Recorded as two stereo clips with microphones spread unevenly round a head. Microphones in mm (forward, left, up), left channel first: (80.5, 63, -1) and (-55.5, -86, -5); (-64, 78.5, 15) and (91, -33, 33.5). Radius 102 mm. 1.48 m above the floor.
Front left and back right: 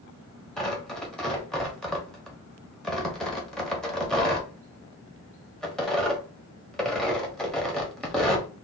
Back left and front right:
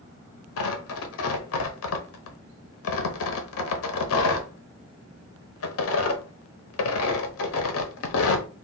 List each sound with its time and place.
0.6 s tearing paper: 135° left, 0.6 m